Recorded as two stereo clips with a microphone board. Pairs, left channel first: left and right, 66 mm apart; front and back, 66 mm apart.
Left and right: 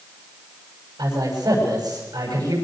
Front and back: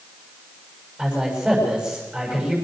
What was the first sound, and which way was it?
A man speaking, 95° right.